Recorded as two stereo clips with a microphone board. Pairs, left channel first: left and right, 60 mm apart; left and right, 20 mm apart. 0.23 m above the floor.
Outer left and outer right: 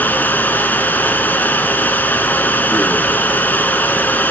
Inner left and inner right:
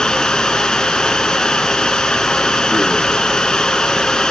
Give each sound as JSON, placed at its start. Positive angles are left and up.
{"t": 0.0, "sound": "running water", "side_deg": 30, "distance_m": 1.1}